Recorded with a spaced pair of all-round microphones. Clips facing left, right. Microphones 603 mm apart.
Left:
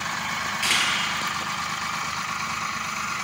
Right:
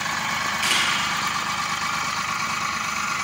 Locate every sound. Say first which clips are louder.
0.6 s a camera shutter: even; 10° left (ahead or behind), 4.5 m